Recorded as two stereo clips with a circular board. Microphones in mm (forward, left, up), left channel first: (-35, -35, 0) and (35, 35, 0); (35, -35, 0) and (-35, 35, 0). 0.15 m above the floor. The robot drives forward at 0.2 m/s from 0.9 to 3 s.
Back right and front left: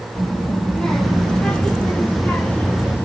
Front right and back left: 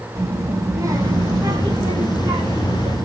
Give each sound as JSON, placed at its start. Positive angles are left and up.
{"t": 0.1, "sound": "a child speaking", "azimuth_deg": 145, "distance_m": 0.8}